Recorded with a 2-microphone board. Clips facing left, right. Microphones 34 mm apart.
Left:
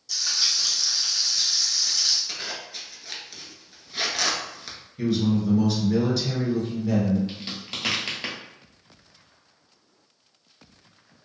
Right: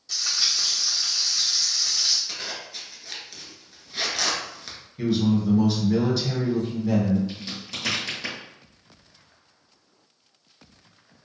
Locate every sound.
0.1 s frying: 45° right (ahead or behind), 1.1 m
2.3 s a zipper: 5° left (ahead or behind), 0.7 m
5.0 s a man speaking: 10° right (ahead or behind), 1.2 m
7.3 s a crack: 45° left (ahead or behind), 1.1 m